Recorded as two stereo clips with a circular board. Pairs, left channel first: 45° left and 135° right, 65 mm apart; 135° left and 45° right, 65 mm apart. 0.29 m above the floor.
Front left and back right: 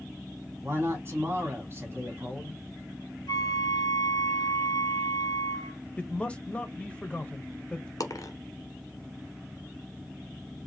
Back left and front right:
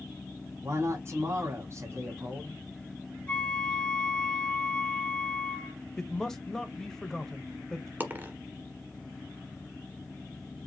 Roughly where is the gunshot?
I don't hear a gunshot.